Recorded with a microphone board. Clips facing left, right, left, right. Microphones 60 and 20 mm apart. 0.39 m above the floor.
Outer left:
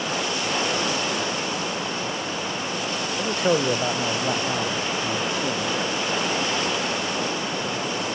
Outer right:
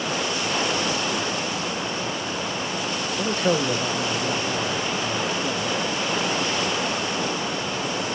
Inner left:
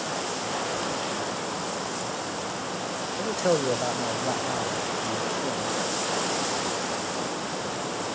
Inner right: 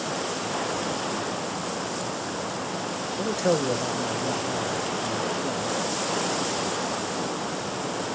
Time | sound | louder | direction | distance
3.2 | a man speaking | outer left 1 dB, even | 15° right (ahead or behind) | 1.0 m